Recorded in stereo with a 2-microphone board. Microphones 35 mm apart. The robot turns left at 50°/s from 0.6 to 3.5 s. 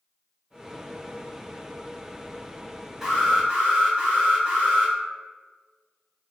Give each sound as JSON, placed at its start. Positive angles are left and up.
{"t": 3.0, "sound": "an alarm", "side_deg": -10, "distance_m": 1.3}